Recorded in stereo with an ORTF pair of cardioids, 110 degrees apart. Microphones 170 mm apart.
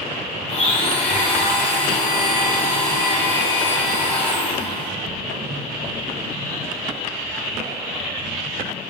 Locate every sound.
0.5 s a blender: 35° left, 1.3 m